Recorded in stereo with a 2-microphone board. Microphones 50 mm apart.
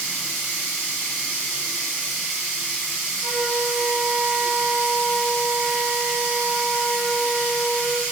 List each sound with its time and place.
0.0 s running water: 20° right (ahead or behind), 1.9 m
3.2 s a flute: 50° left (ahead or behind), 1.3 m